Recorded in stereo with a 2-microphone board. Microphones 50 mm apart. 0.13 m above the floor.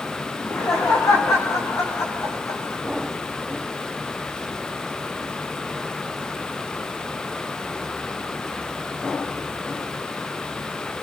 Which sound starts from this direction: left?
Laughter, at 0.3 s.